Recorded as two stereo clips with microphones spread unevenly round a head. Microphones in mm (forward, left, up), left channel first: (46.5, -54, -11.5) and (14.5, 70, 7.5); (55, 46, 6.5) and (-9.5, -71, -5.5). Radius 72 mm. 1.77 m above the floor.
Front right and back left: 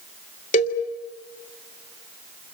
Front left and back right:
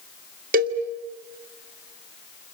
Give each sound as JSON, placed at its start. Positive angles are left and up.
{"t": 0.5, "sound": "a cowbell", "azimuth_deg": -115, "distance_m": 2.0}